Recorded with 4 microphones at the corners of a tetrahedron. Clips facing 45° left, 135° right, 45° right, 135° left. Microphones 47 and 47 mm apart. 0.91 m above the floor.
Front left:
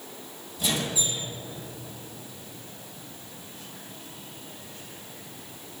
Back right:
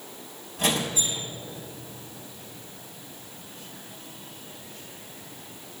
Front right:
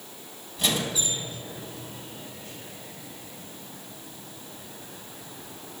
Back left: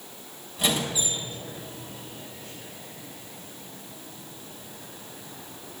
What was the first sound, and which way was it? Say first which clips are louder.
A squeak: back right 2 dB, back left 1 dB; 140° right.